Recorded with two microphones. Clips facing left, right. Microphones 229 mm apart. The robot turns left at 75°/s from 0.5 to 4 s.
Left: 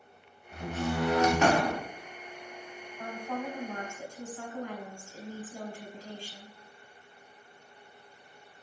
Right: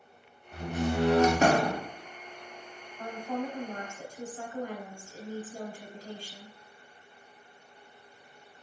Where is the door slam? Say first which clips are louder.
Right 2 dB; 5° right, 0.7 m; by 1.8 s 100° right, 0.7 m.